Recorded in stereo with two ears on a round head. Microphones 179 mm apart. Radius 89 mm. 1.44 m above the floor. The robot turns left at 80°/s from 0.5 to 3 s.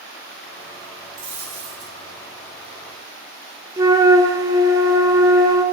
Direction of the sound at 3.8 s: 15° right (ahead or behind).